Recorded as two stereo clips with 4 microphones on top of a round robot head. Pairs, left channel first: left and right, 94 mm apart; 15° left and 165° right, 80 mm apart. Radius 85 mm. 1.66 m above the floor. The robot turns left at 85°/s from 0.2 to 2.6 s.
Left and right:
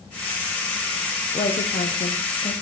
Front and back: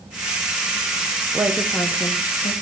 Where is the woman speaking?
125° left, 1.1 m; by 2.5 s 25° left, 1.1 m.